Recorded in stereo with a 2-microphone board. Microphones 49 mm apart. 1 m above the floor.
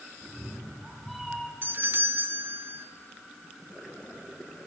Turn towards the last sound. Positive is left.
turn(degrees=-40)  # may be behind; listen again after turning